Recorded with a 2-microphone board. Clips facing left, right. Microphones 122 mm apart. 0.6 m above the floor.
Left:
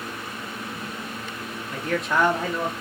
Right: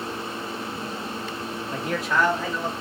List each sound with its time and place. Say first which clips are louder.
1.7 s a man speaking: left 1 dB; 35° right (ahead or behind), 0.8 m; by 2.7 s 45° left (ahead or behind), 1.2 m